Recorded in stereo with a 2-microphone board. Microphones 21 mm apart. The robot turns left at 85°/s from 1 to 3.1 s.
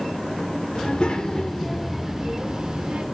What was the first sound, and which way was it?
A child speaking, 75° left.